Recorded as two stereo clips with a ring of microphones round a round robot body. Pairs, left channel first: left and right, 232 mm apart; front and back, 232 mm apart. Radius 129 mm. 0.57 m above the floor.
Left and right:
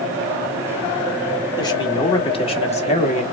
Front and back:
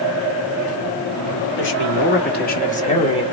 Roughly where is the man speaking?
Ahead.